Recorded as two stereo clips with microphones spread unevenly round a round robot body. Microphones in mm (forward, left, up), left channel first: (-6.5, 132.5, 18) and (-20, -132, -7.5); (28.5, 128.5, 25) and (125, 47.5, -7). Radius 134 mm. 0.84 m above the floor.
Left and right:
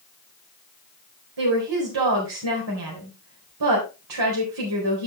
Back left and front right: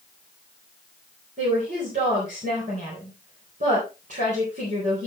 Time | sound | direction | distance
1.4 | a woman speaking | 85° right | 3.5 m